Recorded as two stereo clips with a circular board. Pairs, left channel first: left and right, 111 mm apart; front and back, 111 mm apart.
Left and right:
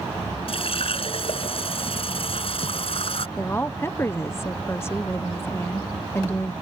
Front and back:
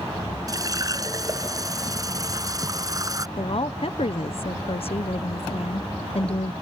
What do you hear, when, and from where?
0.5 s a running tap: 125° left
3.4 s a woman speaking: 25° left